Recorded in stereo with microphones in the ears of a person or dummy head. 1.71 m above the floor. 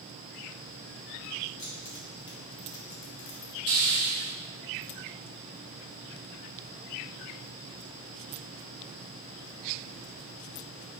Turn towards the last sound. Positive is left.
turn(degrees=-55)  # may be behind; listen again after turning